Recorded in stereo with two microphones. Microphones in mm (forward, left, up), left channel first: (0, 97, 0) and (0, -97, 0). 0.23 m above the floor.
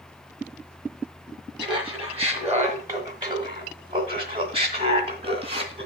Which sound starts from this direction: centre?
Laughter, at 1.6 s.